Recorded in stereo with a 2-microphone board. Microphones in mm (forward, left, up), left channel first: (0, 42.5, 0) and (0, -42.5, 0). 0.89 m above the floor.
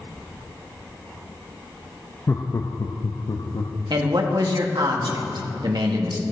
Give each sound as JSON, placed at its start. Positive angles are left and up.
{"t": 2.3, "sound": "laughter", "side_deg": 30, "distance_m": 0.5}
{"t": 3.9, "sound": "a man speaking", "side_deg": -65, "distance_m": 1.3}